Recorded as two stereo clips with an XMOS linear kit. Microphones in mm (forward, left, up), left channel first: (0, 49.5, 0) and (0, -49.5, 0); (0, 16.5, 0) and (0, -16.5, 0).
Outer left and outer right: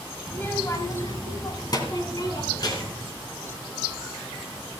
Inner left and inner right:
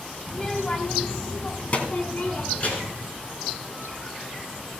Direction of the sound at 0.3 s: 20° left (ahead or behind).